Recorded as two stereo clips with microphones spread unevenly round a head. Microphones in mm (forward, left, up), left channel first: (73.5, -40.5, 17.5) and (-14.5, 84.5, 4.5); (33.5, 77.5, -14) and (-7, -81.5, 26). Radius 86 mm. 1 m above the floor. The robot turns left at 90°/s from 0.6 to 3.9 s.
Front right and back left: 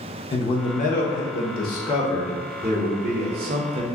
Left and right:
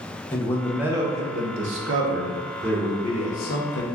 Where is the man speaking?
Straight ahead, 0.7 m; by 3.9 s 70° left, 0.7 m.